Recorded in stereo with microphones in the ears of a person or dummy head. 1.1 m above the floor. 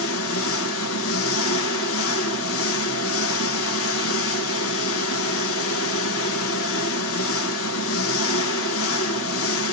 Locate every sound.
0.0 s an engine running: 70° left (ahead or behind), 0.9 m